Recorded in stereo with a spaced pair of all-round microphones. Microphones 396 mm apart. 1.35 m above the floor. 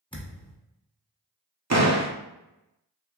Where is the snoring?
No snoring in this recording.